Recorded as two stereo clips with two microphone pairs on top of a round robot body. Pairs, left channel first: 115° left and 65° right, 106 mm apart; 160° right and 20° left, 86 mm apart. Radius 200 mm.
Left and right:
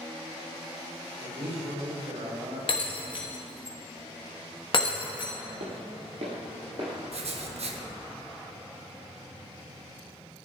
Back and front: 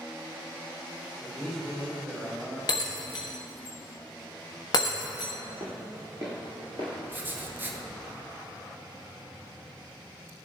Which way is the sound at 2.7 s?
160° left.